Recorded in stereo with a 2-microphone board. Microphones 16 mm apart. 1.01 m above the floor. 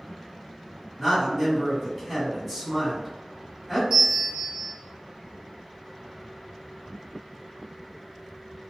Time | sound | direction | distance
1.0 | a man speaking | 5° right (ahead or behind) | 1.5 m
3.9 | a bell | 50° right (ahead or behind) | 1.2 m